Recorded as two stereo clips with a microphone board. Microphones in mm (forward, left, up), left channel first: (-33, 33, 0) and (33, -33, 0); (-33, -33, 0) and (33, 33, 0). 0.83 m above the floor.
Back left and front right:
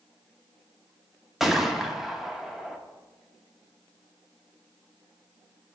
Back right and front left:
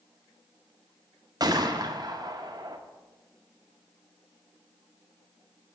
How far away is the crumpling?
I don't hear crumpling.